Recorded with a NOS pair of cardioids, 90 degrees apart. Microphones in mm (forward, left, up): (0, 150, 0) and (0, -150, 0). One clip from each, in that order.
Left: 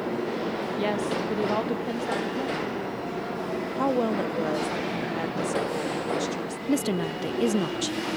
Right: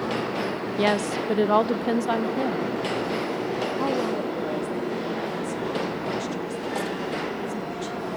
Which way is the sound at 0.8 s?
35° right.